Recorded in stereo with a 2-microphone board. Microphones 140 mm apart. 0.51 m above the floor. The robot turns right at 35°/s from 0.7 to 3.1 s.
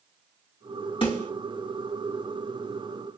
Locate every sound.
1.0 s a snare drum: 40° left (ahead or behind), 3.5 m; by 1.3 s 30° left (ahead or behind), 3.5 m